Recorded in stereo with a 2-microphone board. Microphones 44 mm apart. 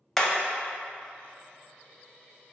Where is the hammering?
5° left (ahead or behind), 0.5 m.